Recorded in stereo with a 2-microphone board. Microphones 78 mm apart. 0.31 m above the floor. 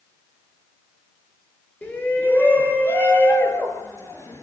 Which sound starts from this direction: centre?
A shout, at 1.8 s.